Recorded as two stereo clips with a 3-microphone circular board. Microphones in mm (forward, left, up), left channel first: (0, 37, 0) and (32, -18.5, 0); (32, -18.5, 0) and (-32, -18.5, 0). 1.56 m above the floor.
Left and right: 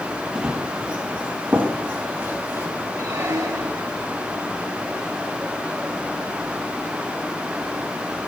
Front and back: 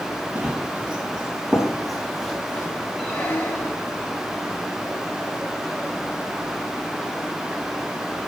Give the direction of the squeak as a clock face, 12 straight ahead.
2 o'clock.